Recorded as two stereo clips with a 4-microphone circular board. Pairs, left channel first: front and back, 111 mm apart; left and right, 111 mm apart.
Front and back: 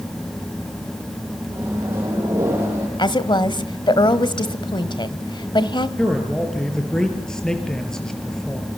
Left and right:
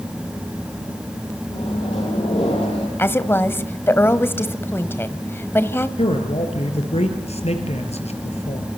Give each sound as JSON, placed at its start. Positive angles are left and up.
{"t": 1.5, "sound": "a microwave", "azimuth_deg": 115, "distance_m": 9.0}
{"t": 3.0, "sound": "a woman speaking", "azimuth_deg": 30, "distance_m": 1.4}
{"t": 6.0, "sound": "a man speaking", "azimuth_deg": 85, "distance_m": 5.0}